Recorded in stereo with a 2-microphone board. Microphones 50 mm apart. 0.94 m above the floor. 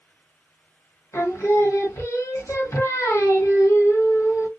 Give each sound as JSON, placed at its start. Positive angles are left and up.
{"t": 1.1, "sound": "singing", "side_deg": 75, "distance_m": 1.2}